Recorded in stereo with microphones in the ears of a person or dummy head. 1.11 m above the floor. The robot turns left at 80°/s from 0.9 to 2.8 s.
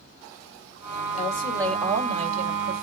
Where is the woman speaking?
45° left, 3.5 m; by 2.8 s 85° right, 3.5 m.